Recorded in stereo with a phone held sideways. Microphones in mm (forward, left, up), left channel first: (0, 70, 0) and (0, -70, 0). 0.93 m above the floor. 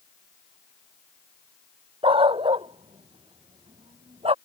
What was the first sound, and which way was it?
A dog barking, 40° right (ahead or behind).